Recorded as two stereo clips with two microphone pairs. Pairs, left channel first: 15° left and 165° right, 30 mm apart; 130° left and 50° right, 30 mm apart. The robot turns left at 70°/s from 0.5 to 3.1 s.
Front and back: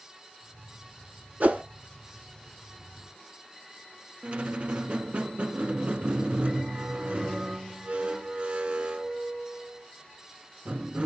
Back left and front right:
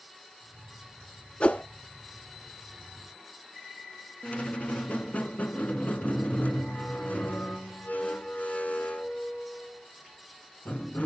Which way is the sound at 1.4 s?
175° left.